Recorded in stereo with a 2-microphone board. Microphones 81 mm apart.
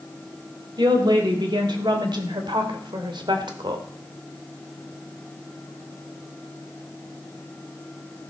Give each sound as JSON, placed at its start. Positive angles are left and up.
{"t": 0.8, "sound": "a woman speaking", "side_deg": -65, "distance_m": 3.5}